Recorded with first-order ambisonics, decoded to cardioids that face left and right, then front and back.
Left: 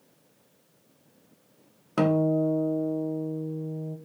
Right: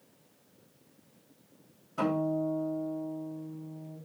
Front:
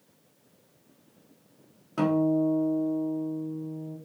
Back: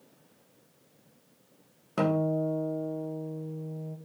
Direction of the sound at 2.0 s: 105° left.